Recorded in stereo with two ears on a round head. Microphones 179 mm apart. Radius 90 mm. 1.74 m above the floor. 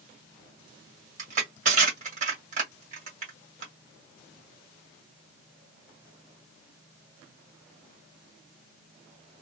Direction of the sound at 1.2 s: 40° right (ahead or behind).